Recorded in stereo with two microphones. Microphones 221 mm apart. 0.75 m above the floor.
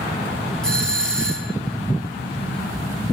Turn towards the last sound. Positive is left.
turn(degrees=5)  # may be behind; listen again after turning